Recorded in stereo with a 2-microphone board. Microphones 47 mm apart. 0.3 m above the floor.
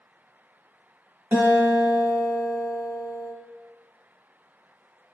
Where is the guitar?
45° right (ahead or behind), 1.1 m.